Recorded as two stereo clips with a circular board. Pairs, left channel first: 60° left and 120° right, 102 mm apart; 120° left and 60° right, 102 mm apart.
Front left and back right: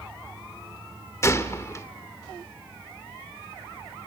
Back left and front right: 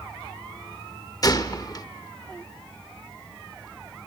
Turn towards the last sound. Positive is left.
turn(degrees=105)